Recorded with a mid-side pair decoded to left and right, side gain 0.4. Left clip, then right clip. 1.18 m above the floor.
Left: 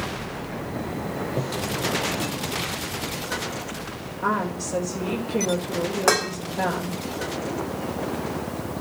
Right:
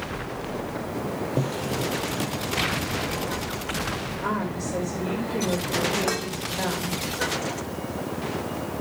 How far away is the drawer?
About 6.5 m.